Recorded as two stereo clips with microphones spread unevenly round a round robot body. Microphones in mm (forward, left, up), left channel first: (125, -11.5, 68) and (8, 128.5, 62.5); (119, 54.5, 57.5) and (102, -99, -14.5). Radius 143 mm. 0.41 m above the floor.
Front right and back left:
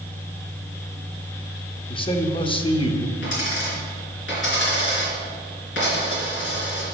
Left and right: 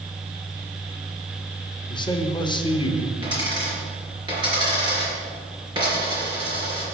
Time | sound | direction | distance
1.9 | a man speaking | 5° left | 1.0 m
3.2 | a dropped coin | 40° right | 3.5 m